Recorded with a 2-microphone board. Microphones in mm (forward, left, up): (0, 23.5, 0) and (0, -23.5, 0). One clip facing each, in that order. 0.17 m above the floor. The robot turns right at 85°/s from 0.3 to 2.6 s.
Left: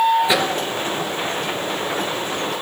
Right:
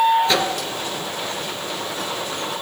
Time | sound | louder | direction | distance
0.2 | a microwave | left 1 dB | 15° left (ahead or behind) | 2.5 m